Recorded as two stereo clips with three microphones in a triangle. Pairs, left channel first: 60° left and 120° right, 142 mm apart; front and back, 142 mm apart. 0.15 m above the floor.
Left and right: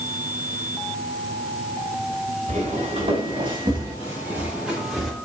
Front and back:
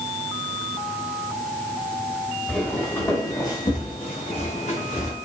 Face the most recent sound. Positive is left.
turn(degrees=-30)